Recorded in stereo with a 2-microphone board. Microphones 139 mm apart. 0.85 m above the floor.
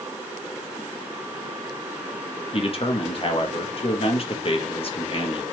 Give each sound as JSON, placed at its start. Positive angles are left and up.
{"t": 2.5, "sound": "a man speaking", "side_deg": 45, "distance_m": 1.0}